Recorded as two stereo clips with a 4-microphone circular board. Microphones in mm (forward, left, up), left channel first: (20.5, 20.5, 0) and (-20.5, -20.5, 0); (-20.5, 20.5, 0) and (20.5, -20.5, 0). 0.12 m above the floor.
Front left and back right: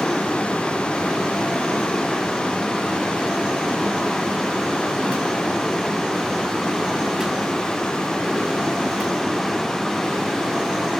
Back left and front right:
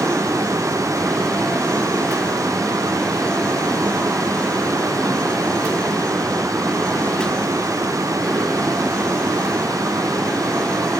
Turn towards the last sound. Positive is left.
turn(degrees=-35)